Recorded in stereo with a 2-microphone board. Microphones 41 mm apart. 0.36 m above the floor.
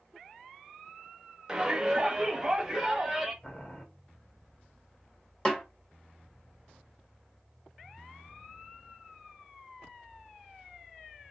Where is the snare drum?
20° left (ahead or behind), 1.2 m.